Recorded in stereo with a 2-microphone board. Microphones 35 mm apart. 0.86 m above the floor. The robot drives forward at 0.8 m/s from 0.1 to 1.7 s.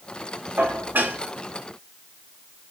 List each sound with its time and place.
0.6 s dishes clattering: 75° right (ahead or behind), 1.5 m; by 1.2 s 60° right (ahead or behind), 1.7 m